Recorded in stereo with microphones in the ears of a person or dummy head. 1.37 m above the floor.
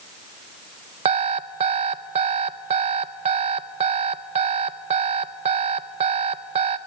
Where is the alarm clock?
30° right (ahead or behind), 0.5 m.